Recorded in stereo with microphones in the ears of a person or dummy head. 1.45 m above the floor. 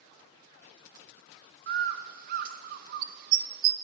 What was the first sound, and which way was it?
A bird, 50° right (ahead or behind).